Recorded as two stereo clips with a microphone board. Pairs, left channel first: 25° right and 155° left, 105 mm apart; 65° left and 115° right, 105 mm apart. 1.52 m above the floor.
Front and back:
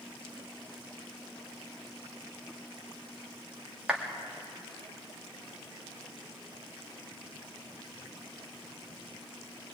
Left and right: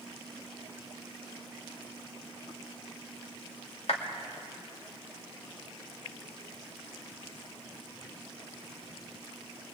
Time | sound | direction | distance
3.9 | a clap | 75° left | 3 m